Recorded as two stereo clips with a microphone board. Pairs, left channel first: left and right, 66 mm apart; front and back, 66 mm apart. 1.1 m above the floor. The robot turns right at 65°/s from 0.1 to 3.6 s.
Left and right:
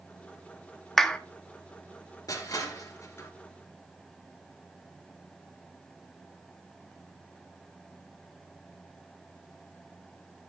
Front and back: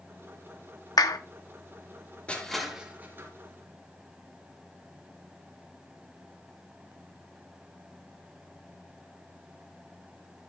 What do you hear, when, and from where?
1.0 s a clap: straight ahead, 1.2 m; by 1.2 s 15° left, 1.2 m
2.3 s crushing: 70° left, 3 m; by 3.3 s 135° left, 3 m